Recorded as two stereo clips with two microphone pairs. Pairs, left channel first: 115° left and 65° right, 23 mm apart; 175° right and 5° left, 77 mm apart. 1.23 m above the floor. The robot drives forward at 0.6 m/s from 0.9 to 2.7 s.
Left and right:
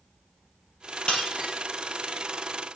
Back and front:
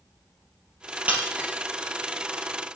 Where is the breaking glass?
75° left, 4 m; by 1.5 s 80° left, 4 m.